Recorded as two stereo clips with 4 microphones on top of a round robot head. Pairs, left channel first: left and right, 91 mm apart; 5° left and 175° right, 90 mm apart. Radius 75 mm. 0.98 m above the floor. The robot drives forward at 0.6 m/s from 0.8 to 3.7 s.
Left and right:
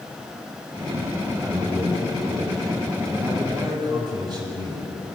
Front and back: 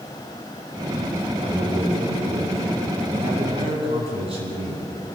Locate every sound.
1.4 s a man speaking: 175° left, 8 m